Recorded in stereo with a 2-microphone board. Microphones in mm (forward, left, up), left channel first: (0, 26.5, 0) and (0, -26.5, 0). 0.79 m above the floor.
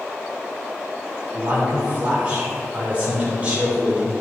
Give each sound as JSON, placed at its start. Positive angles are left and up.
{"t": 1.3, "sound": "a man speaking", "side_deg": -30, "distance_m": 2.5}